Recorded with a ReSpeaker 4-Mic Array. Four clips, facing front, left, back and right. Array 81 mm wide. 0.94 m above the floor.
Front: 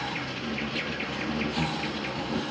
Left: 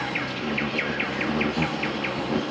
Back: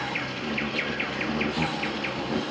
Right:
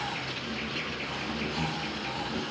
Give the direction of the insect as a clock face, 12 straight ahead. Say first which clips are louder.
Left 6 dB, back 2 dB; 9 o'clock.